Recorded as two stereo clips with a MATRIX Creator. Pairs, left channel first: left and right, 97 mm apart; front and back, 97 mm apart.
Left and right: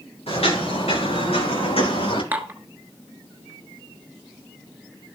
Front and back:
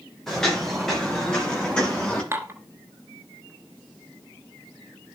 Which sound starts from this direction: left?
Footsteps, at 0.3 s.